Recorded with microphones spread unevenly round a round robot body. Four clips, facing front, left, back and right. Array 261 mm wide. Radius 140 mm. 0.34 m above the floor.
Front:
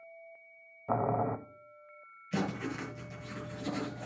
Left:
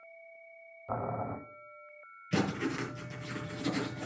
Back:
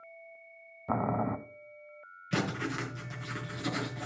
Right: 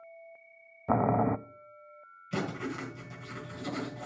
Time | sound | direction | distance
0.9 | boiling | 115° right | 0.6 m
2.3 | writing | 155° left | 5 m